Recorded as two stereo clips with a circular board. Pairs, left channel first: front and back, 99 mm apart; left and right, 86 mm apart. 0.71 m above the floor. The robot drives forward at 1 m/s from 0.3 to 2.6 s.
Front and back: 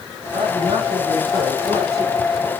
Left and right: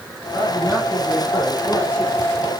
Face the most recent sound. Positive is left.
turn(degrees=165)